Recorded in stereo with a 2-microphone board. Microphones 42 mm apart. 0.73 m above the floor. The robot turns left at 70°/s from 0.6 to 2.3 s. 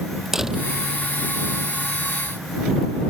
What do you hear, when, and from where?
0.3 s a door slam: 10° right (ahead or behind)